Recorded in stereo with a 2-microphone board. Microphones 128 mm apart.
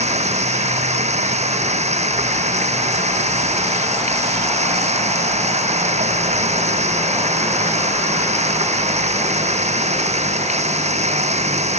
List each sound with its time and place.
0.0 s running water: 55° right (ahead or behind)